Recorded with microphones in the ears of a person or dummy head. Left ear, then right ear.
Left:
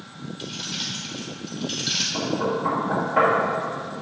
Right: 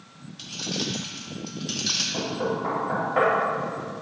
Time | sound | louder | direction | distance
0.4 | keys jangling | even | 80° right | 1.8 m
2.1 | knocking | left 3 dB | 35° right (ahead or behind) | 2 m